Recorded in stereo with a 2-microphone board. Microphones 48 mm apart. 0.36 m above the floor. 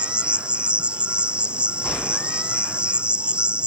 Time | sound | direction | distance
0.0 | an insect | 25° right (ahead or behind) | ?